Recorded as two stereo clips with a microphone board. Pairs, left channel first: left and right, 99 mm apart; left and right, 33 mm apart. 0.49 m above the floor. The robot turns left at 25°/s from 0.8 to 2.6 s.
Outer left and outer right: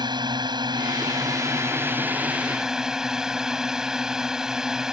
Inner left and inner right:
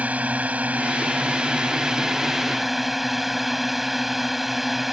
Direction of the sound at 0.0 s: 130° right.